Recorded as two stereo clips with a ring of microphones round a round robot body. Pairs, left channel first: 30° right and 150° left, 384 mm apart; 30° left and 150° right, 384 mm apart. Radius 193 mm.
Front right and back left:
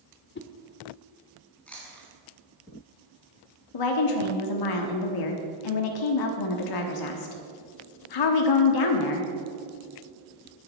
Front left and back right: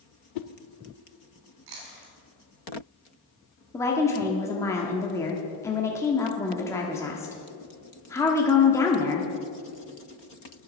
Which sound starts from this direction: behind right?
Chewing, at 1.7 s.